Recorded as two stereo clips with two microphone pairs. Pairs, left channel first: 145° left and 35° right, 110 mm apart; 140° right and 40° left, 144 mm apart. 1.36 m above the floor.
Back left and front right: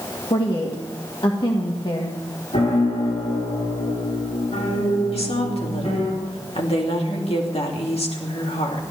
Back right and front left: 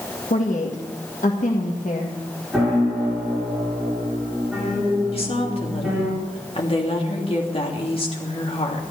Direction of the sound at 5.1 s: 170° left.